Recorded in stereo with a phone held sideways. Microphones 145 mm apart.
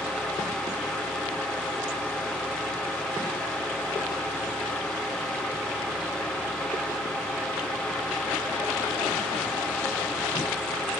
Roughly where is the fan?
Centre.